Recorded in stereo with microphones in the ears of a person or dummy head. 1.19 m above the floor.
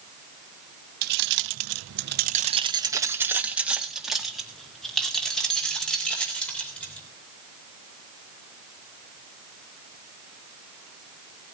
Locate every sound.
1.0 s keys jangling: 50° right (ahead or behind), 0.8 m; by 7.0 s 5° left (ahead or behind), 4 m